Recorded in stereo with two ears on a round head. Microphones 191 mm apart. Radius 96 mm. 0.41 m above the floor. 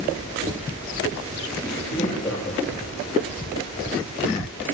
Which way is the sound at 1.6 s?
30° left (ahead or behind).